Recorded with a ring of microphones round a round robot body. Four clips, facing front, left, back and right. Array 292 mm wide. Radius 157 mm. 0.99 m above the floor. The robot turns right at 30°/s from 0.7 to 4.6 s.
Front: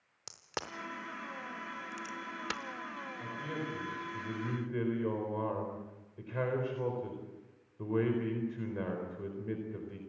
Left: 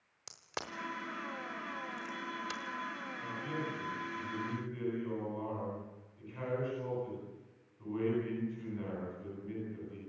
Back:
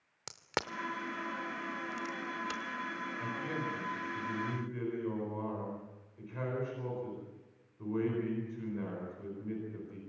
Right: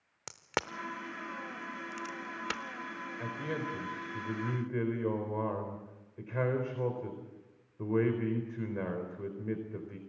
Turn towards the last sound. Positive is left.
turn(degrees=-60)